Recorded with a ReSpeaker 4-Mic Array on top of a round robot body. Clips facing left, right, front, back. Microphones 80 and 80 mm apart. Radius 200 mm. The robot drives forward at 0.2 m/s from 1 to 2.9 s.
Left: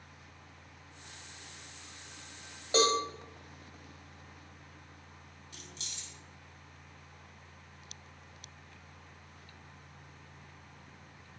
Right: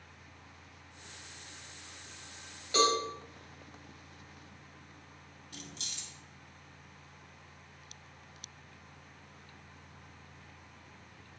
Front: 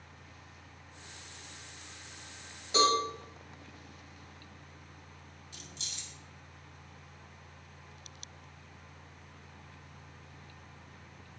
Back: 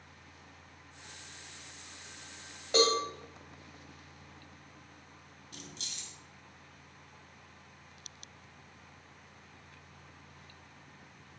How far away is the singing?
No singing in this recording.